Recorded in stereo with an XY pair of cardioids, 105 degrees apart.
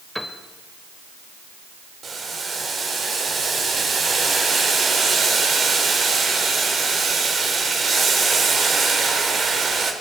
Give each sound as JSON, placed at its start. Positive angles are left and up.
{"t": 0.1, "sound": "a piano", "azimuth_deg": 5, "distance_m": 2.5}
{"t": 2.0, "sound": "boiling", "azimuth_deg": -45, "distance_m": 4.5}